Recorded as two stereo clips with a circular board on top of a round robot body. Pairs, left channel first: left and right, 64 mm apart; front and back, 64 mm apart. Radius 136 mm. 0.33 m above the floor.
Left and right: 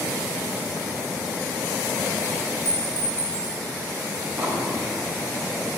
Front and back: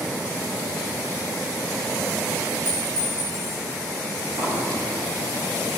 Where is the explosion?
150° right, 2.5 m.